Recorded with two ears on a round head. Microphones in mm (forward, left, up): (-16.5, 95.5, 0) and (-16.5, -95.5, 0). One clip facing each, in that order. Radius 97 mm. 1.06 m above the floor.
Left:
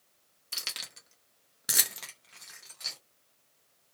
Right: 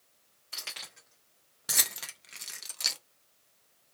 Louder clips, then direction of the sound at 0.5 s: Even; 50° left (ahead or behind).